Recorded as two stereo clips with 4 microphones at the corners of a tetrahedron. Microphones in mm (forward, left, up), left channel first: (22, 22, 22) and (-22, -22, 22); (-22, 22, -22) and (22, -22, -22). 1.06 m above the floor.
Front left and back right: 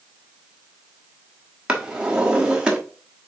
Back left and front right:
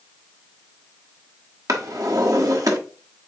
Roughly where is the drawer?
Ahead right.